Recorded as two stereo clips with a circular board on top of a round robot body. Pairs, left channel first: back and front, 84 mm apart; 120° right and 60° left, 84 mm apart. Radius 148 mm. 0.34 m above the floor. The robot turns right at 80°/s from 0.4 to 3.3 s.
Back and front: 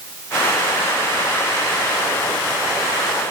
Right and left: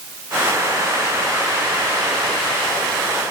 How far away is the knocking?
No knocking in this recording.